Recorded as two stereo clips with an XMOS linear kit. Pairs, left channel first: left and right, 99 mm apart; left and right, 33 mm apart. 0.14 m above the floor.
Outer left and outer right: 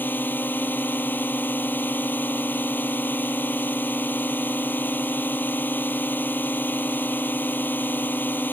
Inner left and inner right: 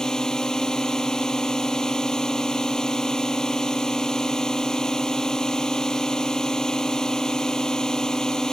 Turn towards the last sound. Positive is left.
turn(degrees=20)  # may be behind; listen again after turning